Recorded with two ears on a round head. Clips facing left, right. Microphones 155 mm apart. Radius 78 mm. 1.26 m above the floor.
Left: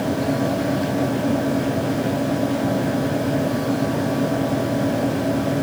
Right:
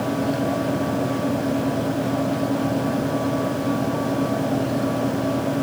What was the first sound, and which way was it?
Only background noise.